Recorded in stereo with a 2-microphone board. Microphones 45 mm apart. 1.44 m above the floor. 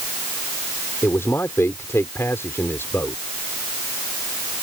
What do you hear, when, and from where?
1.0 s a man speaking: 75° left (ahead or behind)